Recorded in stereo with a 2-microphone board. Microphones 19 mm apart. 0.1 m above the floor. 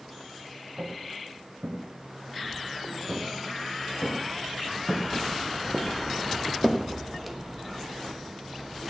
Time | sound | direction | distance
0.8 | footsteps | 90° right | 3.5 m